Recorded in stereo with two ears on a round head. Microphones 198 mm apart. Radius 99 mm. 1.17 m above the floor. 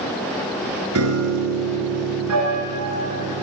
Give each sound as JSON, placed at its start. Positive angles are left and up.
{"t": 0.9, "sound": "a piano", "side_deg": -75, "distance_m": 7.0}